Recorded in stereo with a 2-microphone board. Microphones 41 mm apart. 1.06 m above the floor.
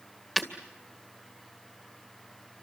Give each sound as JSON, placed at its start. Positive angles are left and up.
{"t": 0.4, "sound": "breaking glass", "side_deg": 10, "distance_m": 2.0}